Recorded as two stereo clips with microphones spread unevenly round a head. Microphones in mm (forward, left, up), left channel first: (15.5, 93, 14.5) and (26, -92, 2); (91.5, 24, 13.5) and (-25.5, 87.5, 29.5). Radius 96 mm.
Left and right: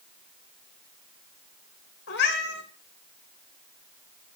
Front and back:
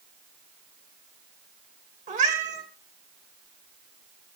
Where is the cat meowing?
130° left, 2.5 m.